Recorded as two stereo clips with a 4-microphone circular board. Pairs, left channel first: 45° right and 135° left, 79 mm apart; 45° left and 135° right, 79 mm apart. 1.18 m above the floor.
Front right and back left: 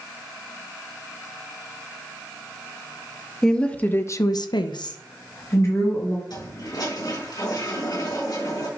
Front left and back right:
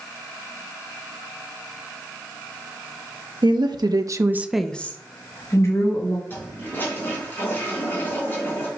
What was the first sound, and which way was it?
A woman speaking, 125° right.